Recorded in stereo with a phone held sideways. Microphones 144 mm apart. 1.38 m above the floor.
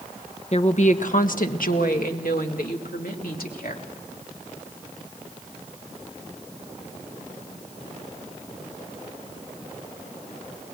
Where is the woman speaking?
45° left (ahead or behind), 1.1 m; by 3.9 s 85° left, 3.5 m.